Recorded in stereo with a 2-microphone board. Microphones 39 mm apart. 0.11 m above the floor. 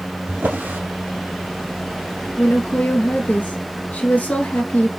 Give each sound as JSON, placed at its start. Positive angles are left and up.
{"t": 0.3, "sound": "a drawer", "side_deg": -65, "distance_m": 2.5}
{"t": 2.4, "sound": "a woman speaking", "side_deg": 50, "distance_m": 1.7}